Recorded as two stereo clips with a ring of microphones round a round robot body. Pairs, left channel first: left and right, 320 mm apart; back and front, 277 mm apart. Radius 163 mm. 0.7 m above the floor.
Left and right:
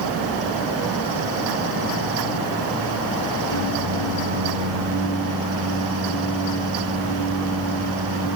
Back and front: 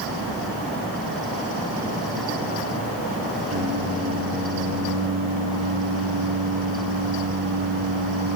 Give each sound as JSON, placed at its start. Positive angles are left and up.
{"t": 3.5, "sound": "singing", "azimuth_deg": 60, "distance_m": 6.5}